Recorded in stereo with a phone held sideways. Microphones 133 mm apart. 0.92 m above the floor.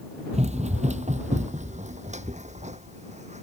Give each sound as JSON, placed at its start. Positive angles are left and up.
{"t": 0.3, "sound": "running footsteps", "side_deg": -55}